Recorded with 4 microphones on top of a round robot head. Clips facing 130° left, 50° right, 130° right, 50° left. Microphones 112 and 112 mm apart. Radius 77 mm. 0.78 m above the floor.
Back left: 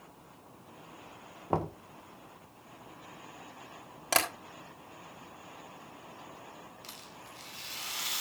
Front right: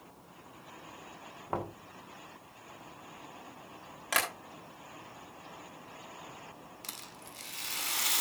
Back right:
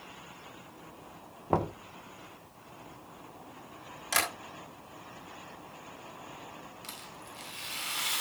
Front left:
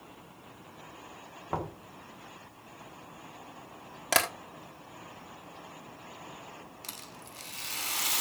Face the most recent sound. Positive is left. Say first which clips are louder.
# even, back right 1 dB
turn(degrees=-5)